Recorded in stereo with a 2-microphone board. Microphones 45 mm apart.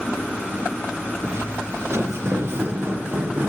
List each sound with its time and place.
1.2 s footsteps: 90° right, 2.5 m; by 3.5 s 50° right (ahead or behind), 4 m